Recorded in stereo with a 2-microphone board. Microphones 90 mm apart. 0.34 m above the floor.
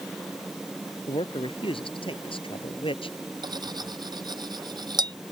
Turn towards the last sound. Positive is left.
turn(degrees=-50)  # may be behind; listen again after turning